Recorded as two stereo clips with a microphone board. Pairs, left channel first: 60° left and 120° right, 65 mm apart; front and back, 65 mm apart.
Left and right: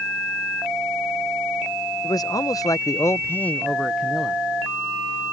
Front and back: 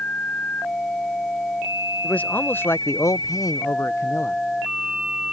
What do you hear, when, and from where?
2.0 s a man speaking: 70° left; by 4.4 s 45° right